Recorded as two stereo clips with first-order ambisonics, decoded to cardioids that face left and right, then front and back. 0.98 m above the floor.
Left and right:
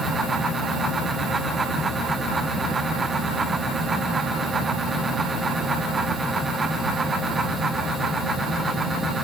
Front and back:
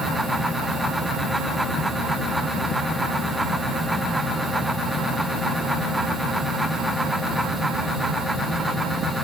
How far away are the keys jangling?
No keys jangling in this recording.